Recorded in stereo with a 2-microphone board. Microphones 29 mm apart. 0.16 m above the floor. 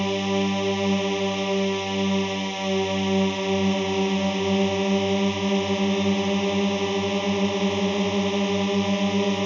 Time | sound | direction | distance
0.0 | a drone | centre (ahead or behind) | ?